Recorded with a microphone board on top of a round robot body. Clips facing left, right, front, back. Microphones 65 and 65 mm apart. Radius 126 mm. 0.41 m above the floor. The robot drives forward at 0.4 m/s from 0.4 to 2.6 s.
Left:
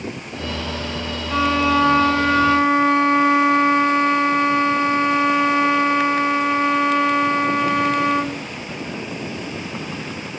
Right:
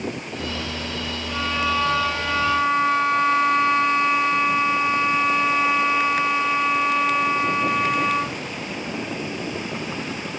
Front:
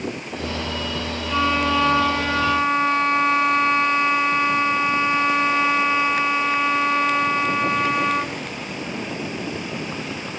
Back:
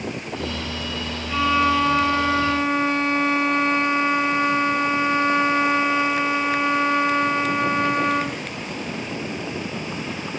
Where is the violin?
85° left, 1.0 m; by 8.4 s 115° left, 1.1 m.